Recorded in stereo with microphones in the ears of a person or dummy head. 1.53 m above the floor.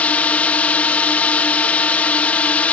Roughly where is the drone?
Centre.